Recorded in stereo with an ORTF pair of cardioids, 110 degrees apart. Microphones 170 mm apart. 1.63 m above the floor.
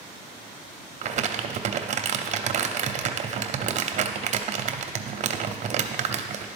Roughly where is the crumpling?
Ahead right.